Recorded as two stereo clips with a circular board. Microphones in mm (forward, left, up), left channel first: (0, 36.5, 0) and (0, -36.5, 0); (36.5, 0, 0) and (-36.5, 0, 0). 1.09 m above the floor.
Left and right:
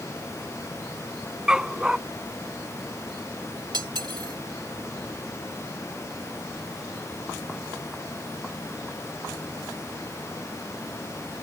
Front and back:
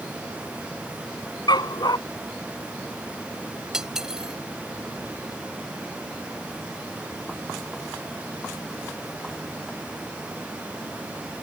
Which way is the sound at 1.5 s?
10° right.